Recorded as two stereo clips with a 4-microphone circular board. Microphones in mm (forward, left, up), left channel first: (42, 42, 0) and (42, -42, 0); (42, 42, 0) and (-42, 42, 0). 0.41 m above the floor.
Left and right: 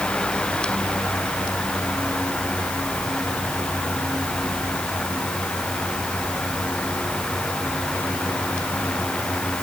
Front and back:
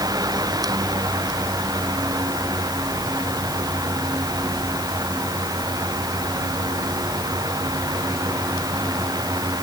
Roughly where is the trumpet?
I don't hear a trumpet.